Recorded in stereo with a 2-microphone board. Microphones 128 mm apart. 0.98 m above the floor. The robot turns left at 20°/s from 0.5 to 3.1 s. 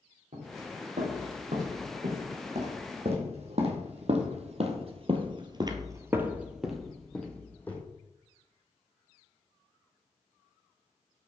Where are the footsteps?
75° right (ahead or behind), 5 m; by 7.8 s 15° left (ahead or behind), 2 m.